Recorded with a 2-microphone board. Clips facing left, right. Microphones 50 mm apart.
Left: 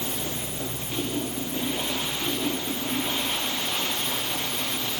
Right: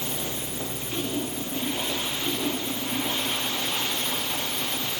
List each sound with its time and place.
Only background noise.